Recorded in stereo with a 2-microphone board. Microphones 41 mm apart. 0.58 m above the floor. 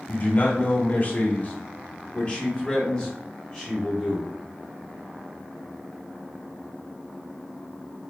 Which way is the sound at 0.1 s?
40° left (ahead or behind).